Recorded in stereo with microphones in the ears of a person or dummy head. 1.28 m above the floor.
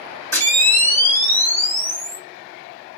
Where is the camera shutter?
10° left (ahead or behind), 1.5 m.